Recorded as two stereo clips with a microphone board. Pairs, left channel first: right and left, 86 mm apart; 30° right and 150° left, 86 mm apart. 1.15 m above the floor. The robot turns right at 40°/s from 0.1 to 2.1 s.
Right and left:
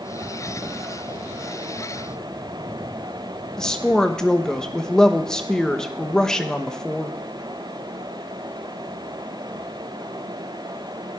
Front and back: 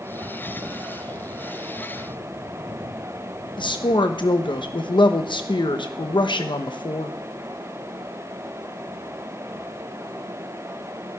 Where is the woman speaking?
10° right, 1.0 m.